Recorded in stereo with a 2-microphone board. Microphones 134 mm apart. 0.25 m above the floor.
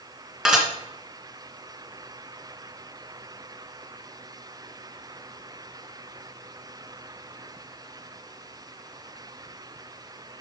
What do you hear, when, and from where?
0.5 s dishes clattering: 5° right (ahead or behind), 2 m